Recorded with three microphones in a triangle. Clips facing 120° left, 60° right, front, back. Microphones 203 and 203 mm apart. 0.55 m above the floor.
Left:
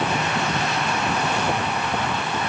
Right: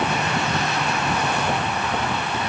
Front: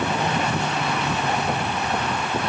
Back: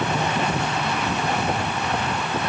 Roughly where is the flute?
I don't hear a flute.